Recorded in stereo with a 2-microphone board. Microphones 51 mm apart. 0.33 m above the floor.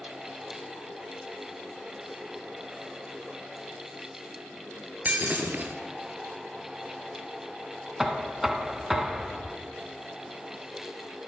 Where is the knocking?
5° right (ahead or behind), 2 m.